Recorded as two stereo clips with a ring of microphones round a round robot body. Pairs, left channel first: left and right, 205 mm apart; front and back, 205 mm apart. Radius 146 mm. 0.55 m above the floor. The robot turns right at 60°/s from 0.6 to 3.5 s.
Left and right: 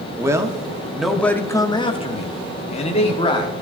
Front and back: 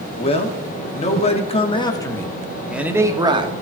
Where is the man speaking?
25° right, 1.2 m; by 3.6 s 145° left, 1.2 m.